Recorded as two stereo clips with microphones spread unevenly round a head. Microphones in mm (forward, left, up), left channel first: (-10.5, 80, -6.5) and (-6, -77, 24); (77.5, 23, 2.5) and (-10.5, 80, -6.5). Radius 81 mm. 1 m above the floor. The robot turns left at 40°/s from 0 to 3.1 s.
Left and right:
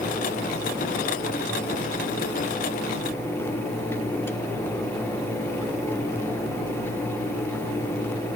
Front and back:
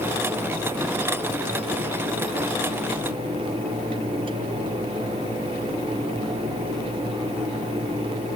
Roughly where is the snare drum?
I don't hear a snare drum.